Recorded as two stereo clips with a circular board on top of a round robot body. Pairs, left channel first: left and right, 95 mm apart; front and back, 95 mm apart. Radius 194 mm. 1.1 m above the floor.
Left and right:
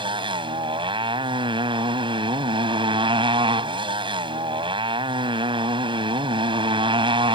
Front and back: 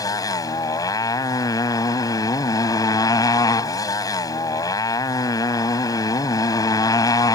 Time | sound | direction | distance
0.0 | a motorcycle | 55° right | ?